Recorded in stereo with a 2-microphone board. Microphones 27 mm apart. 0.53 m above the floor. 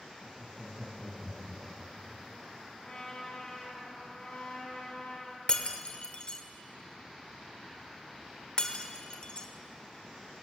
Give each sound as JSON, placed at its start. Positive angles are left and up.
{"t": 0.2, "sound": "laughter", "side_deg": 5, "distance_m": 3.0}
{"t": 2.8, "sound": "a trumpet", "side_deg": 30, "distance_m": 3.5}
{"t": 5.5, "sound": "breaking glass", "side_deg": 35, "distance_m": 1.1}